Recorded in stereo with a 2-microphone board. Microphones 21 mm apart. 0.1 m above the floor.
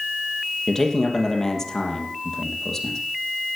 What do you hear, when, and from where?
0.7 s a man speaking: 20° left (ahead or behind), 3 m